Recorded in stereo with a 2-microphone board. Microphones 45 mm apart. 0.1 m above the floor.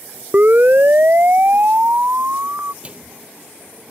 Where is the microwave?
25° right (ahead or behind).